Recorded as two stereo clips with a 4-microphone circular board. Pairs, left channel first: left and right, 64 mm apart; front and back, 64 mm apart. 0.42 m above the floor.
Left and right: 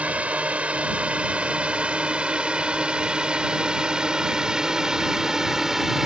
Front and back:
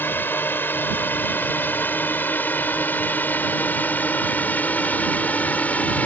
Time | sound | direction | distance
0.0 | a drone | 35° right | ?